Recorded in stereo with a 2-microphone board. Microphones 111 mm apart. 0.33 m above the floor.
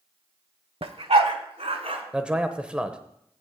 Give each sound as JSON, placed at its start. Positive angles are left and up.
{"t": 0.8, "sound": "a dog barking", "side_deg": -55, "distance_m": 0.7}
{"t": 2.1, "sound": "a man speaking", "side_deg": -10, "distance_m": 0.9}